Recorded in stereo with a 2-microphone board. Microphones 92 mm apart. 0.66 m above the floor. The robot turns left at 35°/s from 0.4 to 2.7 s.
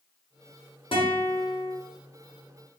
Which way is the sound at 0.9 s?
75° left (ahead or behind).